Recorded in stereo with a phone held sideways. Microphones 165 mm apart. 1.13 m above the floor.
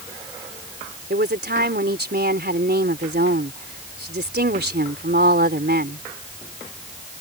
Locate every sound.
1.1 s a woman speaking: 85° right